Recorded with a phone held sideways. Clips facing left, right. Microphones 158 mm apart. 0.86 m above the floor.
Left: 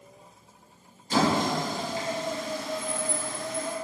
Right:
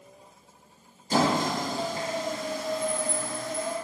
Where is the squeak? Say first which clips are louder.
Even; 40° right (ahead or behind), 0.8 m.